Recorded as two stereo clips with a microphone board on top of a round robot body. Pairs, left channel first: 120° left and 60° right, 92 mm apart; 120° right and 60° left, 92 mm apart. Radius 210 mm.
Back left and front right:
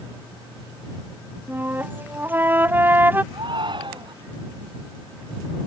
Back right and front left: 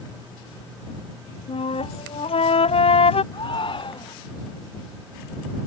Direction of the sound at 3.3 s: 95° right.